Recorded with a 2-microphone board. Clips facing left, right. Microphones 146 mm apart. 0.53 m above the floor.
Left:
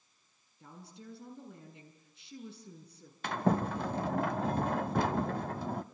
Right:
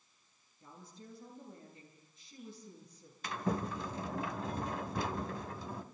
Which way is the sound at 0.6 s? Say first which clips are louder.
Left 3 dB; 75° left (ahead or behind).